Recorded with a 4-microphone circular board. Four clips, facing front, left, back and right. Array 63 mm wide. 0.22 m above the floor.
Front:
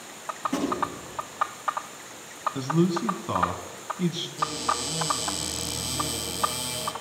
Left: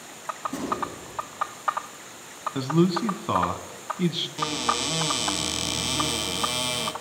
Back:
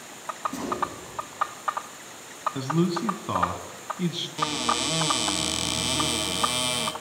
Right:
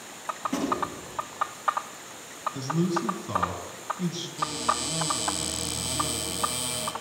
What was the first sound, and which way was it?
A gunshot, 45° right.